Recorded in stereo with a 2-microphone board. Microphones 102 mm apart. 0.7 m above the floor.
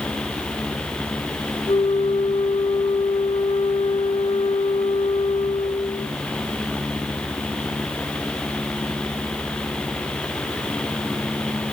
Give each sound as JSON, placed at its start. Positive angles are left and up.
{"t": 1.7, "sound": "a flute", "side_deg": 65, "distance_m": 1.8}